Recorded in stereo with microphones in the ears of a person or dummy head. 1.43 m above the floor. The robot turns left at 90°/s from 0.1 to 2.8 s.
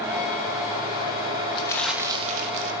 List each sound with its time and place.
1.6 s crumpling: 30° left, 2.5 m; by 2.7 s 75° right, 2.5 m